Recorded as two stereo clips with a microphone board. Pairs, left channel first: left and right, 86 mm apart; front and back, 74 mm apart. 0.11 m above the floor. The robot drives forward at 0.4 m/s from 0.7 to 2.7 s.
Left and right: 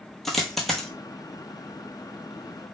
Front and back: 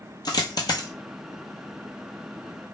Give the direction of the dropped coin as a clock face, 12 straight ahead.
12 o'clock.